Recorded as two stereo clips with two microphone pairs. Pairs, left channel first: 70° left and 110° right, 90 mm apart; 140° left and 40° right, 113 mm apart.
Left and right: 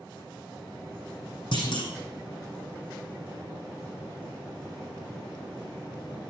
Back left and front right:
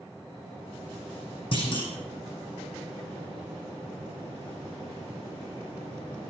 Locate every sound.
1.5 s a clunk: 95° left, 6 m